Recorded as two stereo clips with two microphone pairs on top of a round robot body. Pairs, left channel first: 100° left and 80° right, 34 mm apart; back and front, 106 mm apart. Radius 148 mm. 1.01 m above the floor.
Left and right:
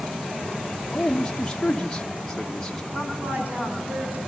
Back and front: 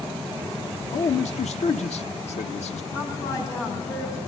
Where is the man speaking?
Straight behind, 1.1 m.